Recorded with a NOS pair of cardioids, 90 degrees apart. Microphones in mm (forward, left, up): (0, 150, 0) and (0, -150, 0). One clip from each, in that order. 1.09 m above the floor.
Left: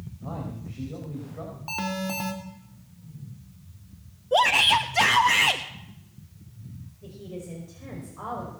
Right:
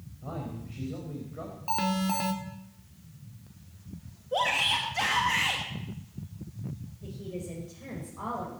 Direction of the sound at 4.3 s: 50° left.